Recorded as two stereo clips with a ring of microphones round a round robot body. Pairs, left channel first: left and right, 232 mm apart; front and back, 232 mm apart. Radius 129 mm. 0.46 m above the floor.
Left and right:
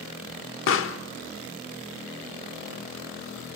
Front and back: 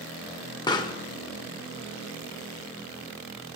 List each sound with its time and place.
0.7 s a pop: 70° left, 0.7 m